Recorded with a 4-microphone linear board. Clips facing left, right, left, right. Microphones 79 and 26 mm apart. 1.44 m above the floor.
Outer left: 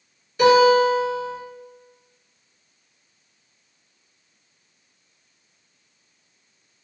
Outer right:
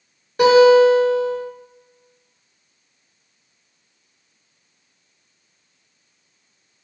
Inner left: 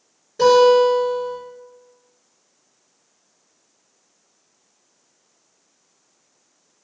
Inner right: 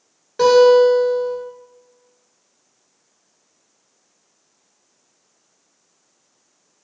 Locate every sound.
0.4 s a guitar: 55° right (ahead or behind), 1.8 m